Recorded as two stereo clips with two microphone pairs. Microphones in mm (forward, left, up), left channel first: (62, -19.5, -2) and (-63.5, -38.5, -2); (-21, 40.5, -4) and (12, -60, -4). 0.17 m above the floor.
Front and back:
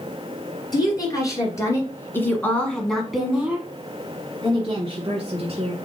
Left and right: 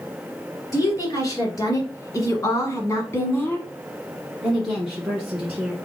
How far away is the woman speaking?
About 2.0 m.